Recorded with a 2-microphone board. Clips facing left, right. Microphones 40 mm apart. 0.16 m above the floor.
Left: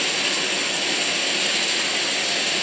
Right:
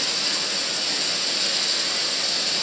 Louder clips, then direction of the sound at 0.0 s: Left 5 dB; 50° left (ahead or behind).